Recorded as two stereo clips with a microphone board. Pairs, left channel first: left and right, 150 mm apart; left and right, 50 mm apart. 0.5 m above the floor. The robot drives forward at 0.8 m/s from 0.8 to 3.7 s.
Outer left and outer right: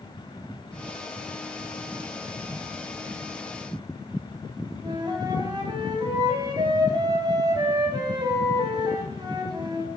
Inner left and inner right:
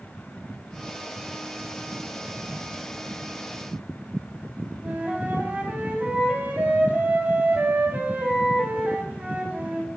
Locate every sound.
4.8 s a flute: 30° right (ahead or behind), 3.5 m